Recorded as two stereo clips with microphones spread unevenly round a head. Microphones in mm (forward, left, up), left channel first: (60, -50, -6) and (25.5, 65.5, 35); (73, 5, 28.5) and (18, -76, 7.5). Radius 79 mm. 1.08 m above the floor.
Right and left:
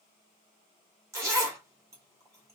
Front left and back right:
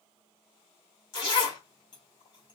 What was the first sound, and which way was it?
A zipper, 65° left.